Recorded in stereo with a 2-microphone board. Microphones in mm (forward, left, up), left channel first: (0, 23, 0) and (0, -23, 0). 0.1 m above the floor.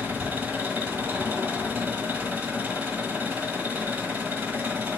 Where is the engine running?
50° right (ahead or behind), 1.1 m.